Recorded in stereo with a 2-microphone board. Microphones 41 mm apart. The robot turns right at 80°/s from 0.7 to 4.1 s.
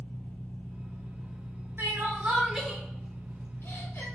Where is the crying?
75° right (ahead or behind), 1.0 m; by 4.0 s 70° left (ahead or behind), 1.0 m.